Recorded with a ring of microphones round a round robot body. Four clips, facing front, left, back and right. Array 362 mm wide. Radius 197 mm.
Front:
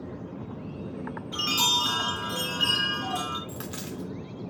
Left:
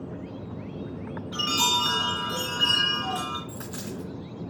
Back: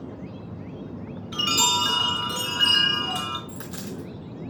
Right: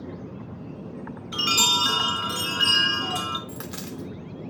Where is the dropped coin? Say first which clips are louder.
Even, back 1 dB; 75° right, 0.7 m.